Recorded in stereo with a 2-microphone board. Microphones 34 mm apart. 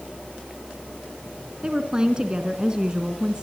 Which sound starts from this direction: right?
A woman speaking, at 1.6 s.